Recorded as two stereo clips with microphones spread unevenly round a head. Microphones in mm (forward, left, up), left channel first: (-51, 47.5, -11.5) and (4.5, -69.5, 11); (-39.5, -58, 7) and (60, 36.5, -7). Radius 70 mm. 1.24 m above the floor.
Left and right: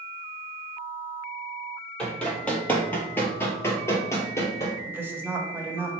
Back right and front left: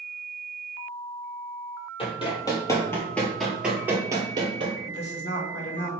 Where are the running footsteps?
155° right, 1.6 m; by 4.8 s 45° left, 1.4 m.